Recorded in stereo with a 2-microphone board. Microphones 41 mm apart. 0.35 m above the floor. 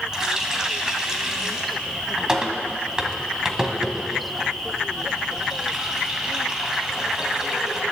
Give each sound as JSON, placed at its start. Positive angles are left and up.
{"t": 0.1, "sound": "a running tap", "side_deg": -15, "distance_m": 1.7}